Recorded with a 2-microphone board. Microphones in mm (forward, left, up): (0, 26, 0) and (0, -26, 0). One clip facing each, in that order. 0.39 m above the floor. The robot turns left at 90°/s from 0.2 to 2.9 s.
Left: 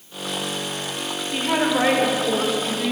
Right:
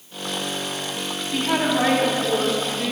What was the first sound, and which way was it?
A woman speaking, 20° left (ahead or behind).